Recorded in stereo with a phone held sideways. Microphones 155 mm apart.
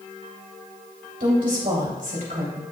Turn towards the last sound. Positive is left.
turn(degrees=-65)  # may be behind; listen again after turning